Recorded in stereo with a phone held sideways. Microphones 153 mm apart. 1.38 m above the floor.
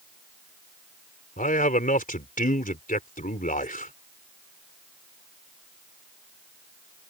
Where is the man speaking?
65° left (ahead or behind).